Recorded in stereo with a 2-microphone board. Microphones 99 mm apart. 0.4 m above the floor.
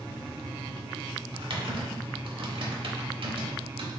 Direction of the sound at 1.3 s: 65° right (ahead or behind).